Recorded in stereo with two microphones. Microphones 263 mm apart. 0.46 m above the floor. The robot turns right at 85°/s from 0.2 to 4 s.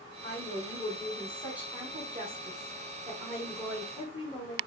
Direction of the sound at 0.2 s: 75° left.